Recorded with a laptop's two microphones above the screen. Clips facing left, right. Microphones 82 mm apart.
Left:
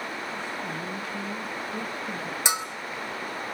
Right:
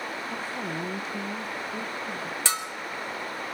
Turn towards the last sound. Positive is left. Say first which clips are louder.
# left 3 dB
turn(degrees=15)  # may be behind; listen again after turning